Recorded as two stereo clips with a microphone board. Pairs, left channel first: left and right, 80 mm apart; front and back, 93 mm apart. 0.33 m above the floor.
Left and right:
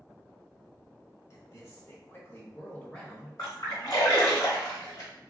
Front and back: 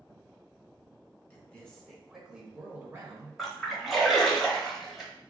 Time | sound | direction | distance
1.3 | a man speaking | 65° left | 1.3 m
3.4 | a splash | 95° left | 1.1 m